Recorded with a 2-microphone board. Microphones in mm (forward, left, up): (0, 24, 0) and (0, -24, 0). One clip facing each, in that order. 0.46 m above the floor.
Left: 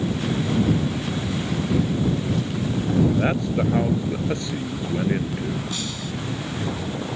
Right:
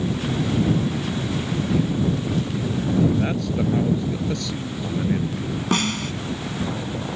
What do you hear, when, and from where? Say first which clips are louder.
3.1 s a man speaking: left 1 dB; 25° left (ahead or behind)
5.7 s a snare drum: right 7 dB; 55° right (ahead or behind)